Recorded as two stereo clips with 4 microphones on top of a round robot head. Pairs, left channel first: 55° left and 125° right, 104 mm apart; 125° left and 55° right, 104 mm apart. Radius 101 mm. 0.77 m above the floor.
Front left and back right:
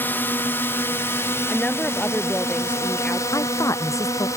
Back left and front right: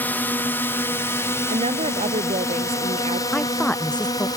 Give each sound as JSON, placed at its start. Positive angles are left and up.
{"t": 0.0, "sound": "a drone", "azimuth_deg": 85}
{"t": 1.5, "sound": "a woman speaking", "azimuth_deg": -25}
{"t": 3.3, "sound": "a woman speaking", "azimuth_deg": 55}